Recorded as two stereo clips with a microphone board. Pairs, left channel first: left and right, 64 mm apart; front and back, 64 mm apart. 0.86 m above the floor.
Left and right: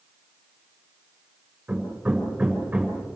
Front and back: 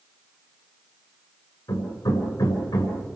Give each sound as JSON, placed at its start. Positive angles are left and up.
{"t": 1.7, "sound": "hammering", "azimuth_deg": -20, "distance_m": 7.0}